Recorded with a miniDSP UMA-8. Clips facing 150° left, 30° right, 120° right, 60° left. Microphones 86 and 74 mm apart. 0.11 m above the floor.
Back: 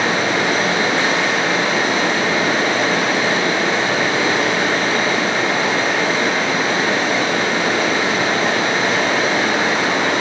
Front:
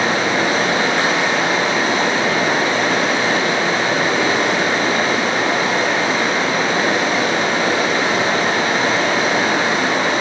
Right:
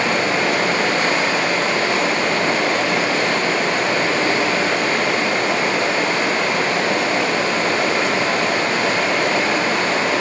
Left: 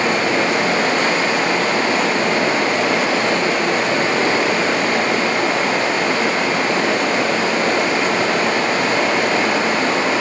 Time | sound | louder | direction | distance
0.0 | running water | even, left 1 dB | 45° left | 2.5 m